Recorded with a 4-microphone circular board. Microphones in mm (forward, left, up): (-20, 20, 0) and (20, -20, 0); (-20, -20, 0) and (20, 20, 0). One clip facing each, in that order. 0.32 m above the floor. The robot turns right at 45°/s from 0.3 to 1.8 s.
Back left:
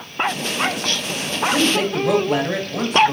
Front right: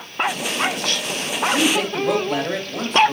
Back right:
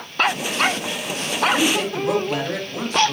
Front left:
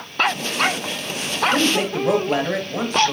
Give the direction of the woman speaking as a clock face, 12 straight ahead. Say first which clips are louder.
Back left 1 dB, front left 2 dB; 11 o'clock.